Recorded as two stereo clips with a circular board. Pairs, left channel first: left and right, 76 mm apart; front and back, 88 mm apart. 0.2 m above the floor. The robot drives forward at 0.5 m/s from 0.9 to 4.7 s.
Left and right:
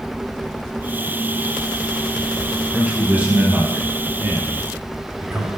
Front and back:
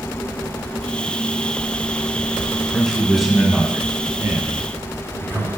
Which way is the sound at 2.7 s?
65° right.